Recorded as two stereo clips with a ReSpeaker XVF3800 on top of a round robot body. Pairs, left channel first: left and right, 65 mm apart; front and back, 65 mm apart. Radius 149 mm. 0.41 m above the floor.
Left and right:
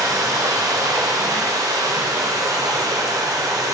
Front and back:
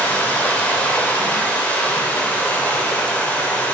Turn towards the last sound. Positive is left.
turn(degrees=-65)